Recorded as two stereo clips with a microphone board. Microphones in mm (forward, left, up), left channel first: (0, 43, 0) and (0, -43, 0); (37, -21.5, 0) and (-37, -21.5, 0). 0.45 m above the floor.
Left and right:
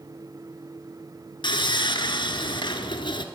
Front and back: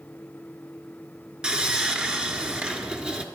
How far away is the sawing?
About 1.2 m.